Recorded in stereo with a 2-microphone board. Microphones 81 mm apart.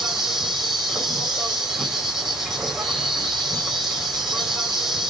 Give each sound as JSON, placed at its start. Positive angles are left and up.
{"t": 0.0, "sound": "an insect", "side_deg": 0, "distance_m": 3.5}